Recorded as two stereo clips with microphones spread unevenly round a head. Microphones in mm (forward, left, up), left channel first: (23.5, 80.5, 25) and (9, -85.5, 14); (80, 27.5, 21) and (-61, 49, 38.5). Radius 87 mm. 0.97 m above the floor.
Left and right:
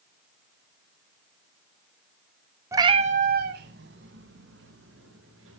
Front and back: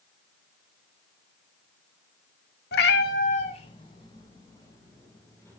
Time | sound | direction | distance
2.7 | a cat meowing | 20° right | 1.0 m